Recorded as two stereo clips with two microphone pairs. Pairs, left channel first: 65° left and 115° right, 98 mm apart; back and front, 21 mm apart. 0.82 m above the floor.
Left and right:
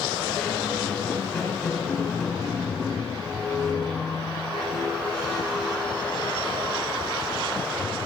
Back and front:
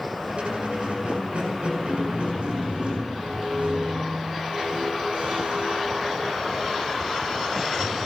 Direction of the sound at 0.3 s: 25° right.